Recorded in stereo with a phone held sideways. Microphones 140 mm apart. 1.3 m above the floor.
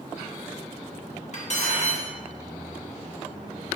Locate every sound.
1.3 s cutlery clinking: 55° left (ahead or behind), 0.9 m